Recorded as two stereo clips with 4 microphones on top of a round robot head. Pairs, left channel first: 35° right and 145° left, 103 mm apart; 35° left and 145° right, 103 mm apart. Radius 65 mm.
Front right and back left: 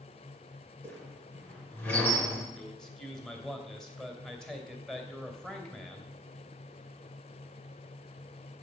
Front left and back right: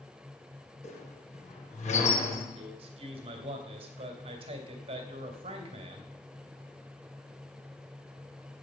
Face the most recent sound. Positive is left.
turn(degrees=-115)